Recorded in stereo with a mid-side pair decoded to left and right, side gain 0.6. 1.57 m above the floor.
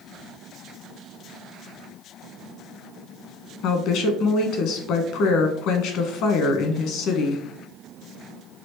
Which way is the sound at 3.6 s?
65° left.